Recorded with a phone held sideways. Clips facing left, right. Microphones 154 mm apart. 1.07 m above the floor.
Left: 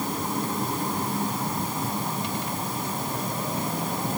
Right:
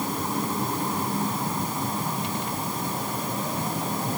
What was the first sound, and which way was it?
Only background noise.